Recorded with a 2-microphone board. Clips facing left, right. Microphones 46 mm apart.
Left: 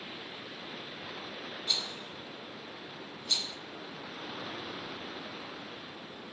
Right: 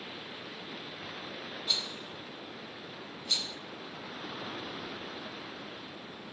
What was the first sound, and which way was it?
A rattle, 5° right (ahead or behind).